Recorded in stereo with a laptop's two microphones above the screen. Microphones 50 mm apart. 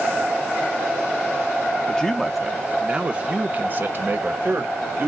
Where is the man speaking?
15° left (ahead or behind), 0.8 m; by 5.1 s 50° right (ahead or behind), 1.7 m.